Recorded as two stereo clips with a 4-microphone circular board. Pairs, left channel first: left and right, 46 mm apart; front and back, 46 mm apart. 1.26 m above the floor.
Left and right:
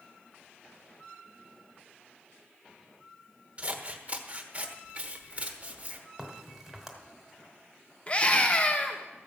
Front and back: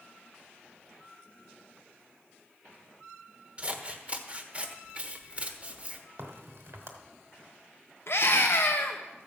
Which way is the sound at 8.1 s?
30° left.